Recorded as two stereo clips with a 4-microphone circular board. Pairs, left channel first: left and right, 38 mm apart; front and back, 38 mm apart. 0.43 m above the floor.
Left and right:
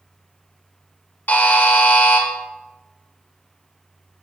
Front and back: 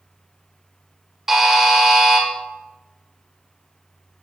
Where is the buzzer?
105° left, 1.2 m.